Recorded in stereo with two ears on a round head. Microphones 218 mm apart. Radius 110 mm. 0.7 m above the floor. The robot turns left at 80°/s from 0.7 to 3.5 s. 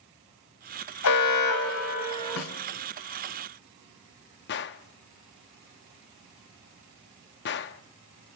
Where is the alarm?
110° left, 2.5 m; by 2.4 s straight ahead, 2.5 m.